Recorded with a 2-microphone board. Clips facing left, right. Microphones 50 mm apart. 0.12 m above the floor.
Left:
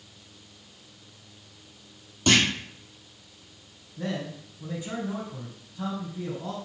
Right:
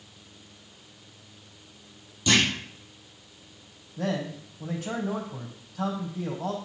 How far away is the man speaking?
About 3.5 m.